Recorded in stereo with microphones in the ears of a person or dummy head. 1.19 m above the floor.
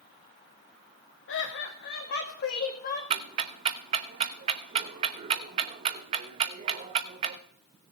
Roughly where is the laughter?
Left.